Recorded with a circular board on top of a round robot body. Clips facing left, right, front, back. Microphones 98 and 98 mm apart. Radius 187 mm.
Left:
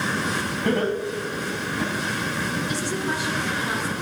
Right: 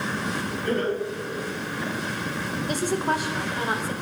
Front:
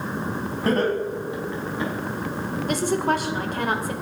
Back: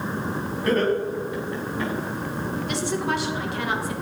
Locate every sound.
0.7 s laughter: 55° left, 5 m; by 1.9 s 75° left, 5.5 m
2.7 s a woman speaking: 45° right, 2.5 m